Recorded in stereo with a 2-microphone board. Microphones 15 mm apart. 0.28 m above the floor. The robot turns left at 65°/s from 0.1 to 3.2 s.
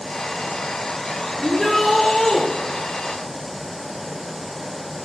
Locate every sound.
1.4 s a shout: 175° left, 7.5 m; by 2.4 s 105° left, 7.5 m